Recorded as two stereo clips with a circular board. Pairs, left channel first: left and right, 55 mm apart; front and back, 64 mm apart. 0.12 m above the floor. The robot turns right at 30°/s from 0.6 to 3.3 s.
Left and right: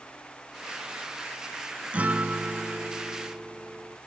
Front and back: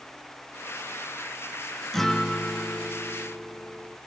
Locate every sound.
1.9 s a guitar: 80° right, 0.7 m; by 4.0 s 40° right, 0.7 m